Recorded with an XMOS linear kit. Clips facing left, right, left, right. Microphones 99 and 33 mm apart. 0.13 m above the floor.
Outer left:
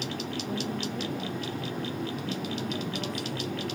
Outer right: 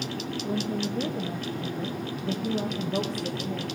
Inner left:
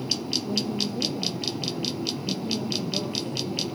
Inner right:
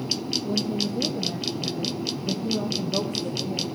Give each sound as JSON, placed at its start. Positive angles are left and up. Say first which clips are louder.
{"t": 0.4, "sound": "a woman speaking", "louder": "outer right 6 dB, inner right 3 dB", "side_deg": -25, "distance_m": 3.0}